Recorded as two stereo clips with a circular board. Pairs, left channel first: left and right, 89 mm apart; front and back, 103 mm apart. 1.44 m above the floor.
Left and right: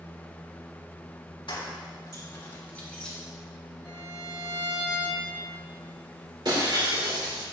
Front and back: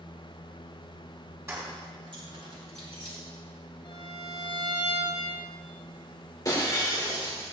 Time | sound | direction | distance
1.5 | keys jangling | 115° left | 2 m
3.8 | a violin | 75° right | 4.5 m
6.5 | breaking glass | 55° right | 3 m